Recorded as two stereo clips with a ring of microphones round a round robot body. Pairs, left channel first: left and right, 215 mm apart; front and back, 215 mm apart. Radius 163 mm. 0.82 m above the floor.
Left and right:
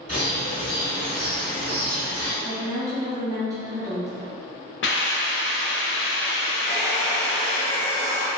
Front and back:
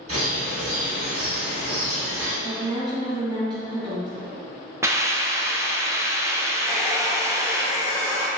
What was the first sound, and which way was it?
A bird, 150° right.